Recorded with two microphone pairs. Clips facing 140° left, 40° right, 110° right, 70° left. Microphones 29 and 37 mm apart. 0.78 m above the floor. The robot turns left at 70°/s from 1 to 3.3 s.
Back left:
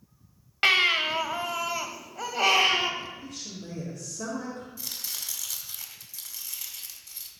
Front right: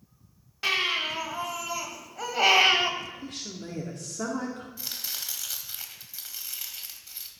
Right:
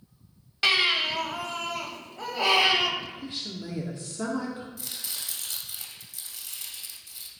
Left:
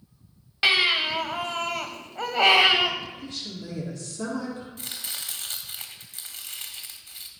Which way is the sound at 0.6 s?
140° left.